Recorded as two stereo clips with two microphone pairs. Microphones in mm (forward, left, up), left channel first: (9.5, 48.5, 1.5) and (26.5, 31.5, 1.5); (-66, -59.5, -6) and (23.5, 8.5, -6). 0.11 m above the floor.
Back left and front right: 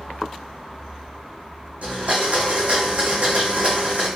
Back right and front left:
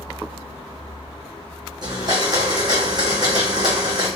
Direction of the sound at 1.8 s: 15° right.